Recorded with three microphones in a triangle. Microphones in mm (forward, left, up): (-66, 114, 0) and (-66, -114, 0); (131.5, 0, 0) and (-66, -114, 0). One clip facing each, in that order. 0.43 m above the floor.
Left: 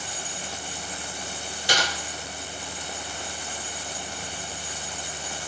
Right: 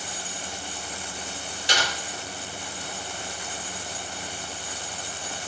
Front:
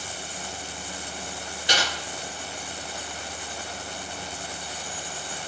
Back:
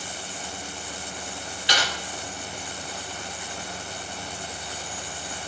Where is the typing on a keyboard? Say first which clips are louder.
Left 2 dB, front 1 dB; 70° left, 1.3 m.